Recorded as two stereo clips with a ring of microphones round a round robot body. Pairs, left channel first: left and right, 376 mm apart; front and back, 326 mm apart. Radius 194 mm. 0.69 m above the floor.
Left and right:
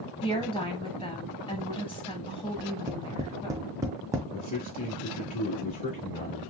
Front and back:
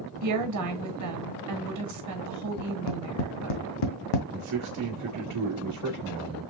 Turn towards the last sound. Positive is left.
turn(degrees=160)